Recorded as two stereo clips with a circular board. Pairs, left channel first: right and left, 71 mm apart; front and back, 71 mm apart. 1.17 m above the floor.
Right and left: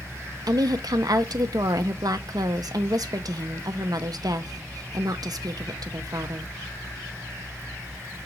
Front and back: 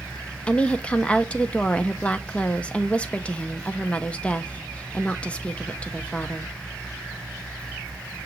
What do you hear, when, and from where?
0.5 s a woman speaking: 70° left, 0.6 m